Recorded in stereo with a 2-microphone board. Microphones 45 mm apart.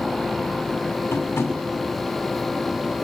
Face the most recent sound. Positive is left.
turn(degrees=75)  # may be behind; listen again after turning